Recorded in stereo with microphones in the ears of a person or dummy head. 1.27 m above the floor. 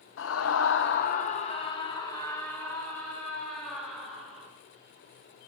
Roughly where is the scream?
Left.